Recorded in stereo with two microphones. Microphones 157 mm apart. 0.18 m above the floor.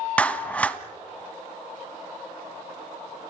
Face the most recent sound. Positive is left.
turn(degrees=10)  # may be behind; listen again after turning